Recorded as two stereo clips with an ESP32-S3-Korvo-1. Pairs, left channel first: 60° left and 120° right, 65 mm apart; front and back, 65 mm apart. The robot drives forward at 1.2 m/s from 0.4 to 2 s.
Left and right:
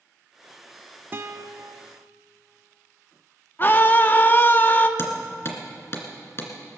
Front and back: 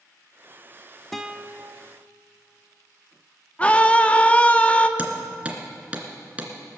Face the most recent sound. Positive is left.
turn(degrees=110)